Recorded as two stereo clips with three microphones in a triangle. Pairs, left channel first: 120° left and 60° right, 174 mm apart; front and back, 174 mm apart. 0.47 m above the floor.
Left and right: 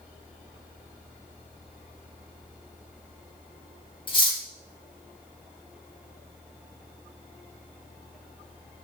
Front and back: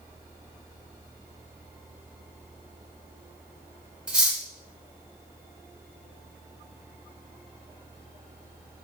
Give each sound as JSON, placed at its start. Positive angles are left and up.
{"t": 4.1, "sound": "cutlery clinking", "azimuth_deg": 100, "distance_m": 0.6}